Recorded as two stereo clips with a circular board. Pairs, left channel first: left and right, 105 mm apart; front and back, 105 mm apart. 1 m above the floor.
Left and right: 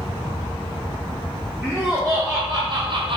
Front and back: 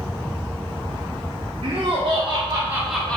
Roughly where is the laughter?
Behind.